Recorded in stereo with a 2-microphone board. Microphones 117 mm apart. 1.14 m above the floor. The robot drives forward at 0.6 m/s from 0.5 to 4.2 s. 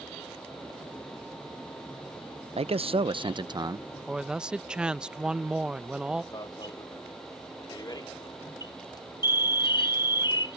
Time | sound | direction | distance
2.6 | a man speaking | 55° right (ahead or behind) | ?
4.1 | a man speaking | 10° right (ahead or behind) | ?
6.3 | an alarm | 35° left (ahead or behind) | ?